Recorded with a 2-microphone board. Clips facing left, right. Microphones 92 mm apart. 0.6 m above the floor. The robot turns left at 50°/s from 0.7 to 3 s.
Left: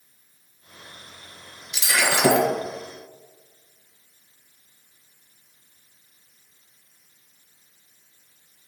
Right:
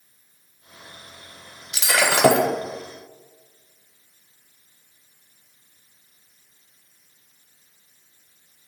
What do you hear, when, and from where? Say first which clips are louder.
1.7 s breaking glass: right 2 dB; 75° right, 0.9 m; by 2.5 s 110° right, 0.9 m